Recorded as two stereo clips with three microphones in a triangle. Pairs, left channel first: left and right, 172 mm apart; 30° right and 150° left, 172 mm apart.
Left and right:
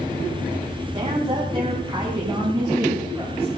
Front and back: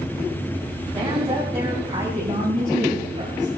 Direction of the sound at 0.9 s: 145° right.